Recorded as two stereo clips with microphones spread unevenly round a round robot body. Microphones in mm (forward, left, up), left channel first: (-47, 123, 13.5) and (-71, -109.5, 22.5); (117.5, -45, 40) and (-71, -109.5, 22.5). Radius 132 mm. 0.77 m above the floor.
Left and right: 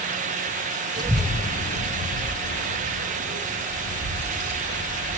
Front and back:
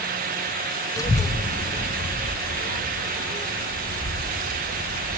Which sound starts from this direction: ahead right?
A child speaking, at 1.0 s.